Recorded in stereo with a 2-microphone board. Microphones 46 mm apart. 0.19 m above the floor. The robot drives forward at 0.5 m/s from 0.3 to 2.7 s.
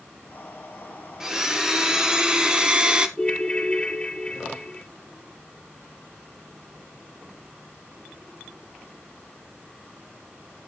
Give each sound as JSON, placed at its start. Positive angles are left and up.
{"t": 1.2, "sound": "a blender", "side_deg": -15, "distance_m": 1.9}
{"t": 3.2, "sound": "a ringtone", "side_deg": 20, "distance_m": 1.5}